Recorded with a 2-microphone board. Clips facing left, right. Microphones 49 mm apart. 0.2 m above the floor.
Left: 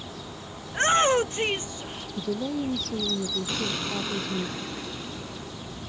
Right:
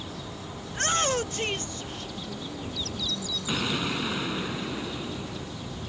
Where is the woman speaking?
80° left.